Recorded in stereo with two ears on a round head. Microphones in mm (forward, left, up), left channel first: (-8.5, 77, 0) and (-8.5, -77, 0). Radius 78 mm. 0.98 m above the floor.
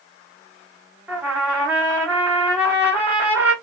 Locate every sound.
1.1 s a trumpet: 10° right (ahead or behind), 1.8 m